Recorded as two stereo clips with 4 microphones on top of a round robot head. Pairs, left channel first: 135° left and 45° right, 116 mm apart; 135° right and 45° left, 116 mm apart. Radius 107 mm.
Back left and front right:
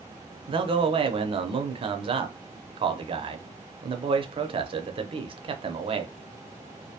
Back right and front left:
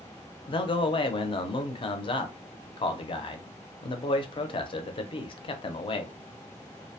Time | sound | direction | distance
0.5 | a man speaking | 90° right | 0.6 m